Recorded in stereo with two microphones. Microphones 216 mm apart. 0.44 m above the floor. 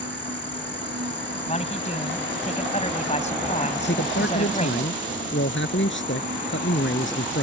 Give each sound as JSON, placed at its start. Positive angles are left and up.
{"t": 0.0, "sound": "an insect", "side_deg": -60}
{"t": 1.5, "sound": "a man speaking", "side_deg": 30}
{"t": 3.8, "sound": "a man speaking", "side_deg": 60}